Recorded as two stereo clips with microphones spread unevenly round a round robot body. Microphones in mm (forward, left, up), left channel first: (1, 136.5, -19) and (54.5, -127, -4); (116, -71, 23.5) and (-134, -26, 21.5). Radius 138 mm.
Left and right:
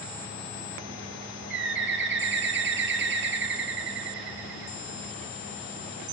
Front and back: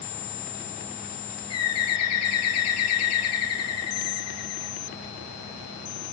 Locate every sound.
1.5 s a bird: 30° right, 1.4 m